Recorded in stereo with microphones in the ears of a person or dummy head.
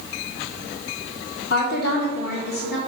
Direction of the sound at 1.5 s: 55° left (ahead or behind).